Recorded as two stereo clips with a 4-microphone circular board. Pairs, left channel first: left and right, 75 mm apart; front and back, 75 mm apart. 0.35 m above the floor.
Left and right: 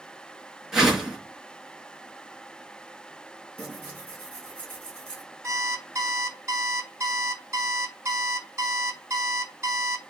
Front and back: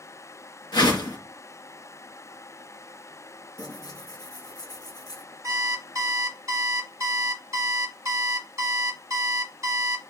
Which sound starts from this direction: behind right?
An alarm clock, at 5.4 s.